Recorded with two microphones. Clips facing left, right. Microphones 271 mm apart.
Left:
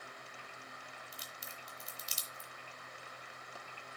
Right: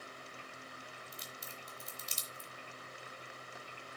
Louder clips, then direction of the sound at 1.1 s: Right 2 dB; 55° right (ahead or behind).